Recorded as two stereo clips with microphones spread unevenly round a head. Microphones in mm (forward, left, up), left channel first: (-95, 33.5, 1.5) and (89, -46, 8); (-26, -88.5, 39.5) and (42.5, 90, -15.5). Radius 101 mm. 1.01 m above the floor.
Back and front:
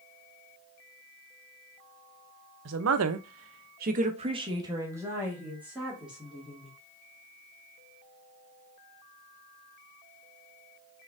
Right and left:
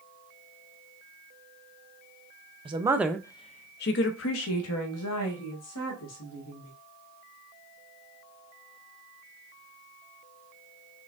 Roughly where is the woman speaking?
Ahead.